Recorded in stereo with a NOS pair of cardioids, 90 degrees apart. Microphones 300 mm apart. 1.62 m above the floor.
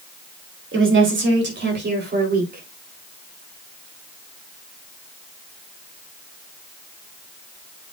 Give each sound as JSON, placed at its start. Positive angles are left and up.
{"t": 0.7, "sound": "a woman speaking", "azimuth_deg": -40, "distance_m": 4.0}